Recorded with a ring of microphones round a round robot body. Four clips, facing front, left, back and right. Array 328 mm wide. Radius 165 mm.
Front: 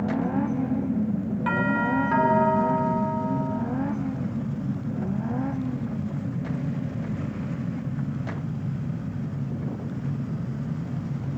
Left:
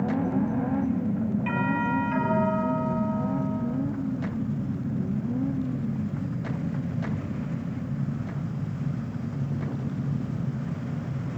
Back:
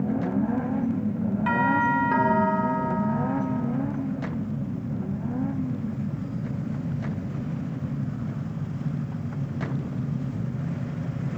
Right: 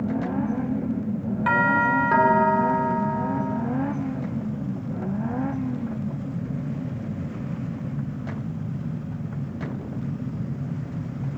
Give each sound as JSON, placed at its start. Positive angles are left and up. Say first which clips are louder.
{"t": 1.5, "sound": "a doorbell", "louder": "right 10 dB, back 2 dB", "azimuth_deg": -90, "distance_m": 4.5}